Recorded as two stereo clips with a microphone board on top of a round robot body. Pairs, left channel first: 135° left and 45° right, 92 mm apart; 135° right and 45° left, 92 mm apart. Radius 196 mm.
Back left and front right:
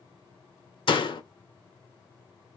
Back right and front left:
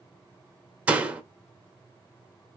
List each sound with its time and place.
0.9 s a door slam: 120° left, 1.4 m